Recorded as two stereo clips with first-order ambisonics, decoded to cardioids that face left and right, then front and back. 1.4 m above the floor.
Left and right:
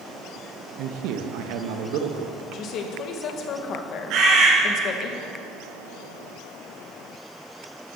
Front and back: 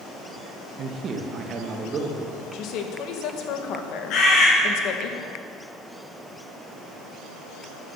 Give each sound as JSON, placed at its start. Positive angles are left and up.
{"t": 0.8, "sound": "a man speaking", "azimuth_deg": -125, "distance_m": 1.3}
{"t": 2.5, "sound": "a woman speaking", "azimuth_deg": 40, "distance_m": 1.7}
{"t": 4.1, "sound": "a bird", "azimuth_deg": -45, "distance_m": 5.0}